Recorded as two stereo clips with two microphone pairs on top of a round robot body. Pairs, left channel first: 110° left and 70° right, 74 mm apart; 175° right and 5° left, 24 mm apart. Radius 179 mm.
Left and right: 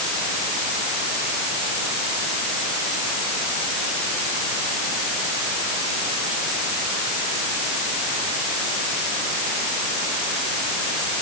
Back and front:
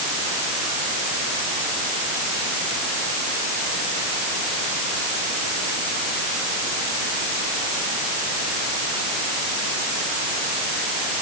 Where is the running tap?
I don't hear a running tap.